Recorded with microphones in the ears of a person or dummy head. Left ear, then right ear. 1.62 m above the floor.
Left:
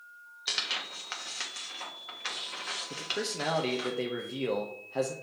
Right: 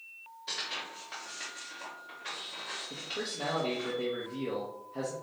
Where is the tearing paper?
60° left (ahead or behind), 1.0 m.